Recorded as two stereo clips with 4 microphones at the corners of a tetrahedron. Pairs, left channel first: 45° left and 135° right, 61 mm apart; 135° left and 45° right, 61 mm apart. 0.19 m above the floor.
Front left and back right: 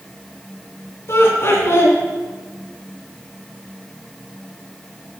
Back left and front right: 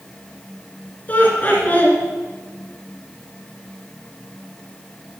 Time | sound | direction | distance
1.1 | laughter | 80° left | 2.5 m